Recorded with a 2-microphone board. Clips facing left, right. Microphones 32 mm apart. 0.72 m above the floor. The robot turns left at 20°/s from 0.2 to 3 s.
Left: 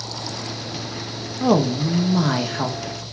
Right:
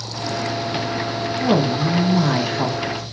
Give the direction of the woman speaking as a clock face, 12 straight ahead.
11 o'clock.